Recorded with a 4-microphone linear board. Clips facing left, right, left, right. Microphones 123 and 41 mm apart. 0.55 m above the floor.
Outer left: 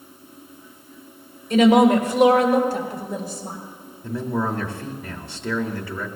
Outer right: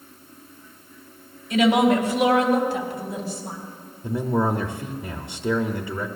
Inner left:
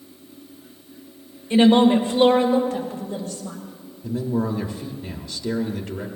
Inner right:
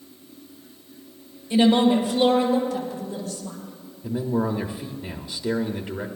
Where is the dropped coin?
I don't hear a dropped coin.